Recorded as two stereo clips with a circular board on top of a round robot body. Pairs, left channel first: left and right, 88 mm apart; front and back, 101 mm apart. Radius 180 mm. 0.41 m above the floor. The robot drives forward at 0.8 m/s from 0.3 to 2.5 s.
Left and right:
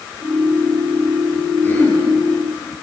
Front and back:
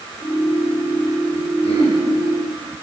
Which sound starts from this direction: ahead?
Throat clearing, at 1.6 s.